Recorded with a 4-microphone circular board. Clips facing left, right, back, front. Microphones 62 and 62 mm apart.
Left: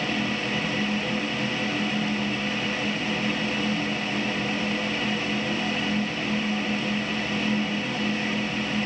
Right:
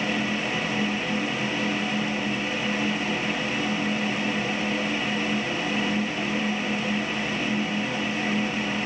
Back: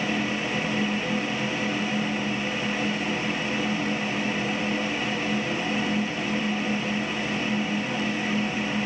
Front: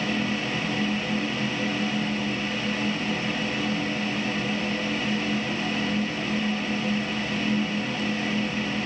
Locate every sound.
Only background noise.